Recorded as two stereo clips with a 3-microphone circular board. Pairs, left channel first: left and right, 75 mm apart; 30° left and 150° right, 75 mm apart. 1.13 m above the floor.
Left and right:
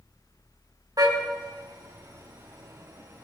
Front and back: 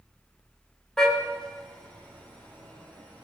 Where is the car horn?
50° right, 3.5 m; by 3.2 s 40° right, 5.5 m.